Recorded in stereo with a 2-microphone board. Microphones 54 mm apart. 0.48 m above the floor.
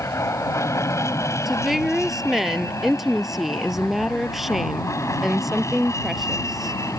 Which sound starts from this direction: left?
An aircraft, at 0.0 s.